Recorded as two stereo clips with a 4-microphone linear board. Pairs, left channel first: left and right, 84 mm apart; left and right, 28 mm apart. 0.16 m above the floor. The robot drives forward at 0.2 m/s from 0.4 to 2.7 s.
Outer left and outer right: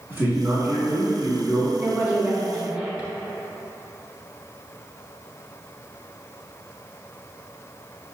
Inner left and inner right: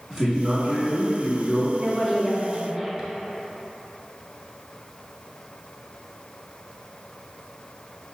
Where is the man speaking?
25° right (ahead or behind), 1.2 m.